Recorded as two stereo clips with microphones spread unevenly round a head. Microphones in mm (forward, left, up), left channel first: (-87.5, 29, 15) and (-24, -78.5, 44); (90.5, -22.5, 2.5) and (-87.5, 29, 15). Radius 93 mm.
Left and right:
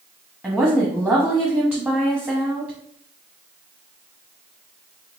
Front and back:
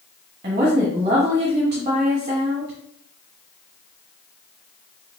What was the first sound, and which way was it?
A woman speaking, 135° right.